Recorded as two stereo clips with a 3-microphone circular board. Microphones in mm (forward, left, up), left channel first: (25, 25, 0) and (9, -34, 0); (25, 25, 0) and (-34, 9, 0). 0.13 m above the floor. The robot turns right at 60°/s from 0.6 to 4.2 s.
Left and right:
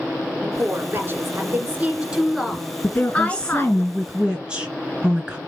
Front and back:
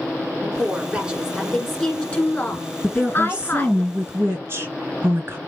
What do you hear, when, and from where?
0.4 s a woman speaking: 130° right, 1.3 m; by 3.8 s 65° left, 1.3 m
2.8 s a woman speaking: 105° left, 1.9 m; by 5.4 s 170° right, 1.9 m